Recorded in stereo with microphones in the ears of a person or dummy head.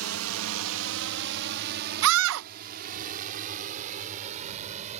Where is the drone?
75° right (ahead or behind); by 5.0 s 35° right (ahead or behind).